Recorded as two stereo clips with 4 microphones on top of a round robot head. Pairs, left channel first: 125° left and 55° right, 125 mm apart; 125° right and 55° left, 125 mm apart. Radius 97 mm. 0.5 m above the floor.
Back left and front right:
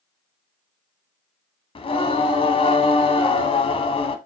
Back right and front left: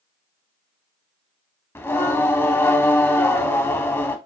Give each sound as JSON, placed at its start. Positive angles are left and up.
{"t": 1.8, "sound": "singing", "azimuth_deg": 165, "distance_m": 0.7}